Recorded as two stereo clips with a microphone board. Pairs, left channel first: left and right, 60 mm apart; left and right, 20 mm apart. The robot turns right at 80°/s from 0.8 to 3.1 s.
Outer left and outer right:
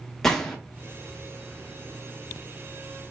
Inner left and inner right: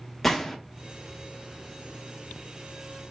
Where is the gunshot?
5° left (ahead or behind), 0.8 m.